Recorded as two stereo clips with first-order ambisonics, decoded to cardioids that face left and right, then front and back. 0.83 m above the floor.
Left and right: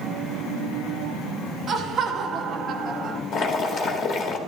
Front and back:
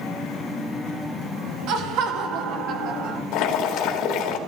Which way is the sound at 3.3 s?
40° left.